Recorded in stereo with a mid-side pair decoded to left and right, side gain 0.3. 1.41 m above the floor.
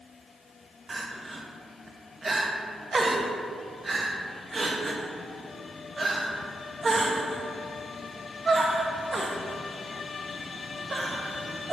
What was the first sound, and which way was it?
Crying, 45° right.